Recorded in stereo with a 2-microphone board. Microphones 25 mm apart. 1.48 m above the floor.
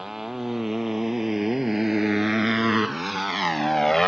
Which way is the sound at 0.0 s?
15° right (ahead or behind).